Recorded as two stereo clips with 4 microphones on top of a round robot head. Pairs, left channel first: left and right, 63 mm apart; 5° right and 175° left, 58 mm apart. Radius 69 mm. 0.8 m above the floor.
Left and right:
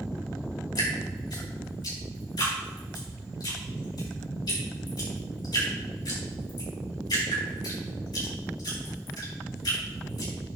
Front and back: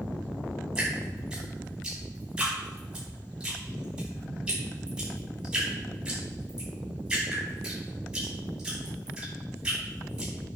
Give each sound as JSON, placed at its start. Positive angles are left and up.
{"t": 0.8, "sound": "dripping", "azimuth_deg": 100, "distance_m": 4.5}